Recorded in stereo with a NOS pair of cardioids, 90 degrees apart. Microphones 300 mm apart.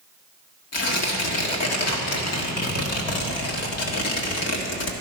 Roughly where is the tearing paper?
Ahead left.